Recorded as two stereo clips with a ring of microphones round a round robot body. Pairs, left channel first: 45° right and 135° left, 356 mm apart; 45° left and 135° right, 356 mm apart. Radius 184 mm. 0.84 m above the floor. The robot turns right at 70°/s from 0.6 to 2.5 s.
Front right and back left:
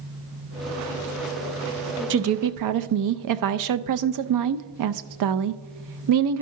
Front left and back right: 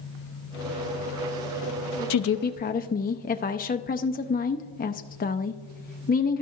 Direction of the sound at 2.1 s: 80° left.